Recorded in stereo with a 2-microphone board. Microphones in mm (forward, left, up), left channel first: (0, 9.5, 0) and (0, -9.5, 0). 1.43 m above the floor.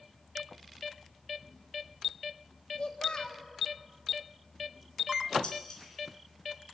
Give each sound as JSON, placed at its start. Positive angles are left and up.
{"t": 2.8, "sound": "a child speaking", "side_deg": 65, "distance_m": 2.0}
{"t": 5.4, "sound": "dishes clattering", "side_deg": 60, "distance_m": 4.5}